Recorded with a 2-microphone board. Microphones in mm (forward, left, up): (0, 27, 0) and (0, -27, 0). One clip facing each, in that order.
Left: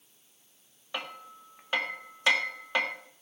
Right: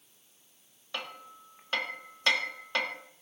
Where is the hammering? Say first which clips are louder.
Left 2 dB; 10° left (ahead or behind), 1.4 m.